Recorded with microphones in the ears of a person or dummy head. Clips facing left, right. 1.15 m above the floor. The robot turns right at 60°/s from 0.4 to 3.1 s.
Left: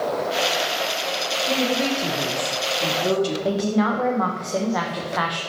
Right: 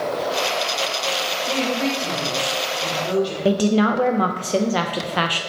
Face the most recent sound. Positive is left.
turn(degrees=-35)  # may be behind; listen again after turning